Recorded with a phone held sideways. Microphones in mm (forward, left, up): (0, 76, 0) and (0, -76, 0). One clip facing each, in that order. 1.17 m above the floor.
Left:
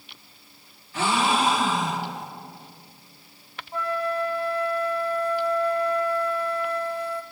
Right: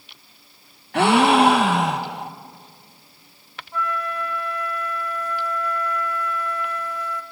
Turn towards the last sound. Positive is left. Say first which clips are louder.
# left 1 dB
turn(degrees=30)  # may be behind; listen again after turning